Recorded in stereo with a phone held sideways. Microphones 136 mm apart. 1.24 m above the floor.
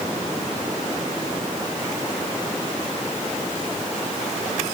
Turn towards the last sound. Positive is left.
No sound to turn to.